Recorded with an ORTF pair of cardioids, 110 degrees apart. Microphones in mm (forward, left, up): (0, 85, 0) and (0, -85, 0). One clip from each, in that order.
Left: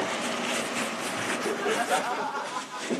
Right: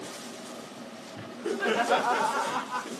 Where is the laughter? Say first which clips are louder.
Even; 5° left, 1.4 m; by 2.9 s 35° right, 1.8 m.